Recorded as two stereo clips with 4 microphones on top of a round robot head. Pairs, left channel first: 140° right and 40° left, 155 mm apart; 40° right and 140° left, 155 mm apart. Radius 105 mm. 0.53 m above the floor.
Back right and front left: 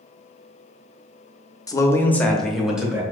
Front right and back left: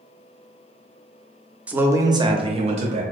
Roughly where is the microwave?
I don't hear a microwave.